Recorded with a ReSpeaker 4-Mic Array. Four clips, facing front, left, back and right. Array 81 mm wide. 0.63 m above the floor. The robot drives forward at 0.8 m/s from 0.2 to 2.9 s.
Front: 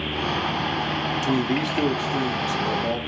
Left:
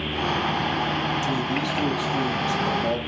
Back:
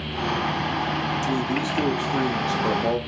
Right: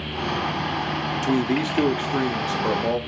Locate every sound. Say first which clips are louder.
1.2 s a man speaking: right 3 dB, front 2 dB; 45° right, 1.0 m; by 3.0 s 145° right, 1.1 m